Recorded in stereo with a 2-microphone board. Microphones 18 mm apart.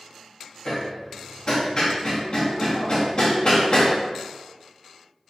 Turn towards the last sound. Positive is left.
turn(degrees=40)  # may be behind; listen again after turning